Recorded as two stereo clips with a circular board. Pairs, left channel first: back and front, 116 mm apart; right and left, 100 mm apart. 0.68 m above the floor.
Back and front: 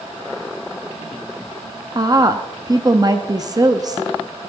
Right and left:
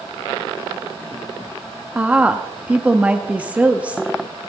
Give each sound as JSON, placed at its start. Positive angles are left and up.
{"t": 1.9, "sound": "a woman speaking", "azimuth_deg": 25, "distance_m": 0.7}